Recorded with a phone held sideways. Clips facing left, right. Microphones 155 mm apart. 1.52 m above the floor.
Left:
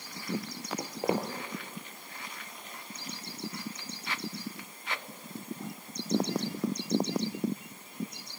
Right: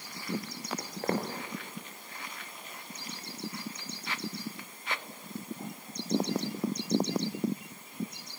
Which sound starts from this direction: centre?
Footsteps, at 0.8 s.